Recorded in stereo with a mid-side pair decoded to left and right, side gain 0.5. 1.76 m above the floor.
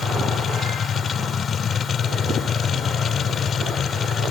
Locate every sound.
0.0 s a machine running: 45° left